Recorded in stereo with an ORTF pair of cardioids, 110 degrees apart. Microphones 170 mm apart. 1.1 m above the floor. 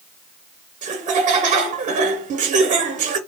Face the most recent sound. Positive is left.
turn(degrees=-45)